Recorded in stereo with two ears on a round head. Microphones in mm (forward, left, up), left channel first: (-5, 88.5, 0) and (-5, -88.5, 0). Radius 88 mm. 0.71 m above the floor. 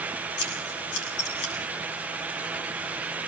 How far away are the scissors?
About 6 m.